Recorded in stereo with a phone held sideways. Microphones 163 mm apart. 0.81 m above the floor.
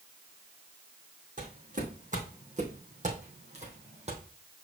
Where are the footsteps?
55° right (ahead or behind), 3.5 m; by 4.2 s 45° right (ahead or behind), 2.5 m.